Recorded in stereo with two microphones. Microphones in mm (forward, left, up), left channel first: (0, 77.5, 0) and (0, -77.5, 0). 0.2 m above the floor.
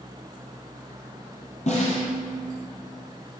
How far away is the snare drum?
About 3.5 m.